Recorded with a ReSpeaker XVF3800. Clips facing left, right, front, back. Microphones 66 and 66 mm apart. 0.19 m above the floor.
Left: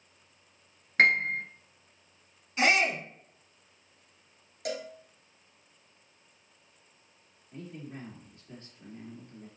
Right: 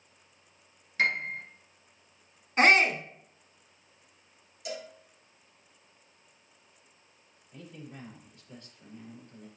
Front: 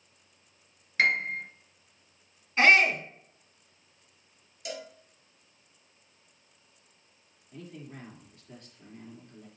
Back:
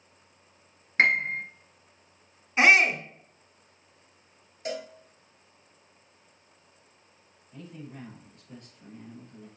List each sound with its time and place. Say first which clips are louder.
1.0 s a piano: left 5 dB, back 3 dB; 120° left, 1.2 m
2.6 s a shout: right 4 dB, back 1 dB; 110° right, 1.4 m
4.7 s a cowbell: left 4 dB, back 5 dB; 125° left, 1.3 m
7.5 s a man speaking: left 3 dB, back 1 dB; 40° left, 4 m